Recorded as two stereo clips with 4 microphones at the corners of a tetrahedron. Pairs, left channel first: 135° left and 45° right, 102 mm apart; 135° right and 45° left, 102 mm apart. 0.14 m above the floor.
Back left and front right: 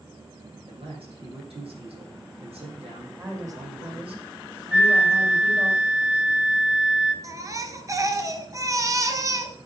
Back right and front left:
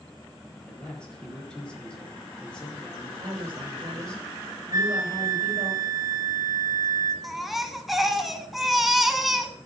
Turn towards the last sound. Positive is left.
turn(degrees=-45)